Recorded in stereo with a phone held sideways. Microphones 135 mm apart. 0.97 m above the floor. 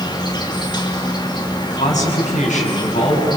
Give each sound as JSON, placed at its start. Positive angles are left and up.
{"t": 0.0, "sound": "an insect", "side_deg": 35, "distance_m": 2.5}
{"t": 1.7, "sound": "a man speaking", "side_deg": 65, "distance_m": 6.0}